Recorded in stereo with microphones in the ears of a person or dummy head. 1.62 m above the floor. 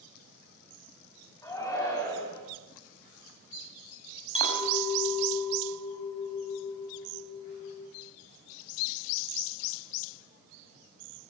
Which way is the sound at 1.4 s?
15° left (ahead or behind).